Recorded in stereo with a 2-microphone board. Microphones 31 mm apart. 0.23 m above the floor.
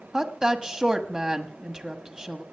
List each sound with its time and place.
0.1 s a woman speaking: 20° right (ahead or behind), 1.3 m